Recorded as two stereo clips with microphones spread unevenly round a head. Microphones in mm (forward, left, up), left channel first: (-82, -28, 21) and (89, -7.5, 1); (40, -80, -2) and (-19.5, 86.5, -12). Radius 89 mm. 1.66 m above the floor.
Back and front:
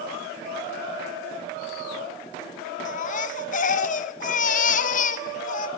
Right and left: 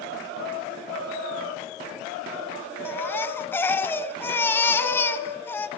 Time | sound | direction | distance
2.9 | a baby crying | 145° right | 1.2 m